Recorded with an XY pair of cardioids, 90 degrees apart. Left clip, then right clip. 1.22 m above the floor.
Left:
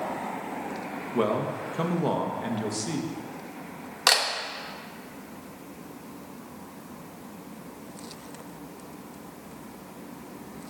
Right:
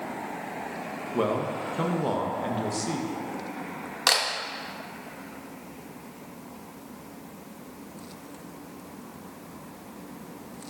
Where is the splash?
No splash in this recording.